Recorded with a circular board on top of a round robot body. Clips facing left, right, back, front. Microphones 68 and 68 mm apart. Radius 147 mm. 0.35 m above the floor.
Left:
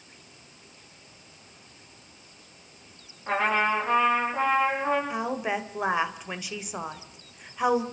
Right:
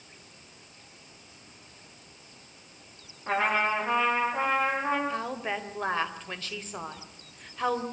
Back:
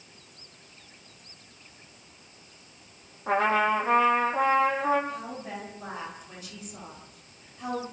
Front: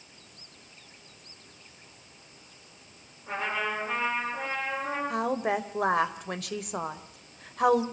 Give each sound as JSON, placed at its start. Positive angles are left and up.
{"t": 3.3, "sound": "a trumpet", "azimuth_deg": 180, "distance_m": 8.0}
{"t": 5.1, "sound": "a woman speaking", "azimuth_deg": 15, "distance_m": 2.5}